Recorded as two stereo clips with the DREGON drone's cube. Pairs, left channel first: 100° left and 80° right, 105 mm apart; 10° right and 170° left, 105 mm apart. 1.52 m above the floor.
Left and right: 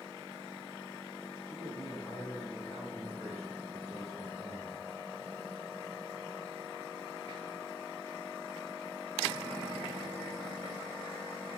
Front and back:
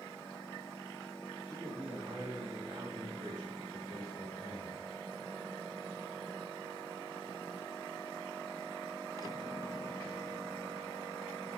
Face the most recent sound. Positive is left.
turn(degrees=-145)